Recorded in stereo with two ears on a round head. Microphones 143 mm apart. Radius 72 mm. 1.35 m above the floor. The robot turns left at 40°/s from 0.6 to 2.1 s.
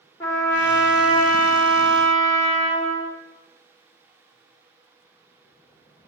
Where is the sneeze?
No sneeze in this recording.